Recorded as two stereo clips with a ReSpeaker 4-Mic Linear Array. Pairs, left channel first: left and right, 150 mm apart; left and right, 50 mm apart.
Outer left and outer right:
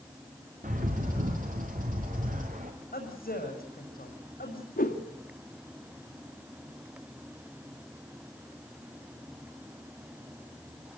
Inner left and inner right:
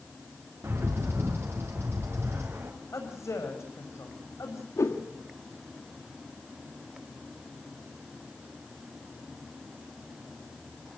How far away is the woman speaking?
About 6.5 m.